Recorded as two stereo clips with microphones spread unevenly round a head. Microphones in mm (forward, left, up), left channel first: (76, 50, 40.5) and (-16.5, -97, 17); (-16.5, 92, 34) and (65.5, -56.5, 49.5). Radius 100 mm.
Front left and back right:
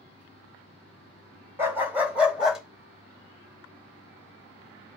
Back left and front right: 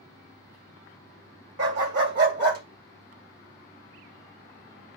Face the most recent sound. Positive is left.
turn(degrees=-30)